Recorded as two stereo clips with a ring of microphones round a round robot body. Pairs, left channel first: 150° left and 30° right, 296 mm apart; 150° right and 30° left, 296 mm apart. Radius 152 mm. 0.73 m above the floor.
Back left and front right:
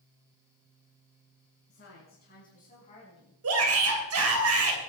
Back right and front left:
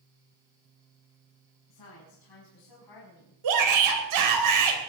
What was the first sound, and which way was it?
A woman speaking, 155° right.